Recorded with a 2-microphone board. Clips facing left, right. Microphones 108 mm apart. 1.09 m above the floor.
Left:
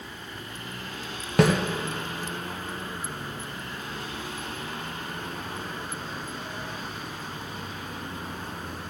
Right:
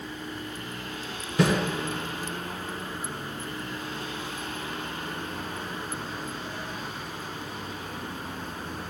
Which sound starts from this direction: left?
A snare drum, at 1.4 s.